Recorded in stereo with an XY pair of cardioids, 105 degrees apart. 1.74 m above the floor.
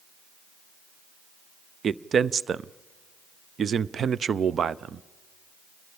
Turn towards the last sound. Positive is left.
turn(degrees=-45)